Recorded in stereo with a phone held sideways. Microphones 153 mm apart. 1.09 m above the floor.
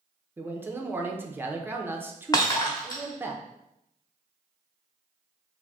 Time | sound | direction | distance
0.4 | a man speaking | 15° right (ahead or behind) | 0.5 m
2.3 | breaking glass | 30° left (ahead or behind) | 1.0 m